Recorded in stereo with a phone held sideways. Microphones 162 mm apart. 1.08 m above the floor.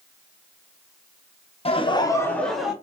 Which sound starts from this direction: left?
Laughter, at 1.6 s.